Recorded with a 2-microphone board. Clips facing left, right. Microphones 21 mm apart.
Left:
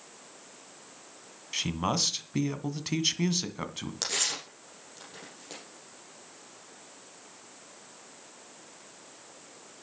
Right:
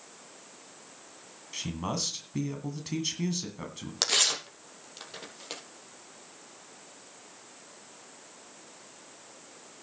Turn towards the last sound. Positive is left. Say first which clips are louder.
# right 6 dB
turn(degrees=-35)  # may be behind; listen again after turning